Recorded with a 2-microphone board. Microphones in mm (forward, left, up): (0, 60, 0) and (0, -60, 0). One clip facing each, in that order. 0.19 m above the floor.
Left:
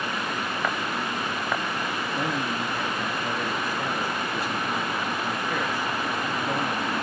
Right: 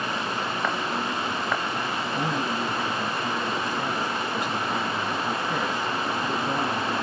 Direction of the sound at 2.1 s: 20° right (ahead or behind).